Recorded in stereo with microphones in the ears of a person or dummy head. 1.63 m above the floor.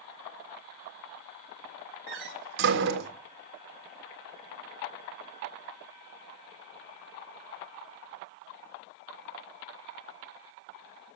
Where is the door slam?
65° right (ahead or behind), 1.6 m.